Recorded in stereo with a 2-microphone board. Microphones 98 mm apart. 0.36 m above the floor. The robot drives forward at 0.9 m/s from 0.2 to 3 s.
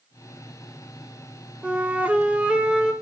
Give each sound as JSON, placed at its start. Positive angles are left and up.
{"t": 1.6, "sound": "a flute", "side_deg": -10, "distance_m": 0.7}